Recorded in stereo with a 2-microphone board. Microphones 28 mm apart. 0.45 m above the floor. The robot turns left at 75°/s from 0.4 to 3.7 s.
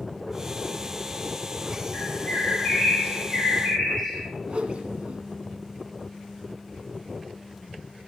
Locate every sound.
1.9 s a bird: 135° left, 6.5 m; by 4.3 s 5° left, 6.5 m
4.5 s a whoosh: 40° right (ahead or behind), 1.7 m